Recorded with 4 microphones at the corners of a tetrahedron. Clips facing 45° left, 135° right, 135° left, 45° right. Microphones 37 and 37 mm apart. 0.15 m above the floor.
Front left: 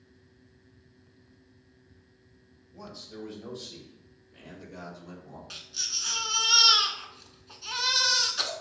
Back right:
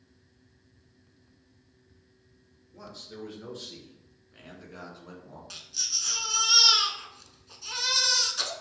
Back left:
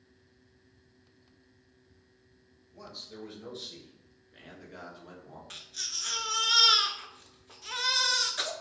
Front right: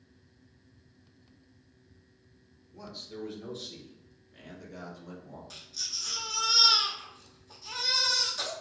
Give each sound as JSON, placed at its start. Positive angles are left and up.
{"t": 2.7, "sound": "a man speaking", "azimuth_deg": -125, "distance_m": 1.9}
{"t": 5.5, "sound": "a baby crying", "azimuth_deg": 120, "distance_m": 0.6}